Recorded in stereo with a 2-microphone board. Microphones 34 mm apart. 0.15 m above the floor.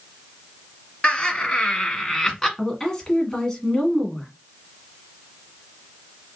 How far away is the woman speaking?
About 1.5 m.